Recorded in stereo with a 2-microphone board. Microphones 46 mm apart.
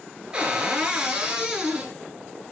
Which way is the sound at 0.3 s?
20° right (ahead or behind).